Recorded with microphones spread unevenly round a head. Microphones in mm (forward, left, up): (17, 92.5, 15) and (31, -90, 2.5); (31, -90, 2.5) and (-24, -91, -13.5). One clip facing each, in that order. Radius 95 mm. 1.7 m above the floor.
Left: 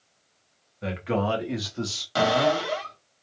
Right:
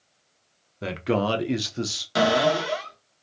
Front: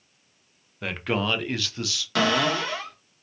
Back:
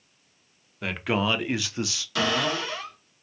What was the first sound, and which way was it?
A man speaking, 80° right.